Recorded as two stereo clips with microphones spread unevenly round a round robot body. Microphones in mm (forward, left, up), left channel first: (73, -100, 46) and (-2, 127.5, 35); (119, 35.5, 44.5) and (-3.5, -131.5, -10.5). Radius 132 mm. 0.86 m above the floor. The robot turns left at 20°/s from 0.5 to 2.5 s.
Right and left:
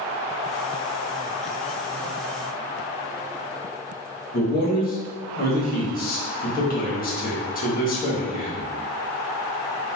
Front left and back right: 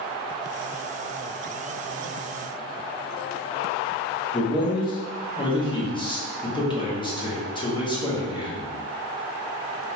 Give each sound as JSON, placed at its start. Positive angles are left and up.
{"t": 4.3, "sound": "a man speaking", "azimuth_deg": -20, "distance_m": 1.6}